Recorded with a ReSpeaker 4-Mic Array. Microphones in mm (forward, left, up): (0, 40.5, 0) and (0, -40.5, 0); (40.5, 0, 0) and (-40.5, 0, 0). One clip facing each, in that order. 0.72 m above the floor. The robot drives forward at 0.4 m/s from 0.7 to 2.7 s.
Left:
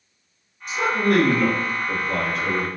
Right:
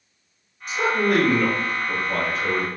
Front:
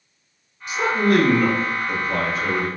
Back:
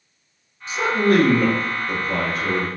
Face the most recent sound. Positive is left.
turn(degrees=180)